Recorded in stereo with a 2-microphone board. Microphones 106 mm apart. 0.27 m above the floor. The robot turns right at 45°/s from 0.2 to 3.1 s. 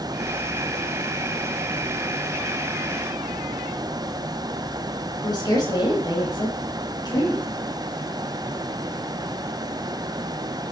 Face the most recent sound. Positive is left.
turn(degrees=40)  # may be behind; listen again after turning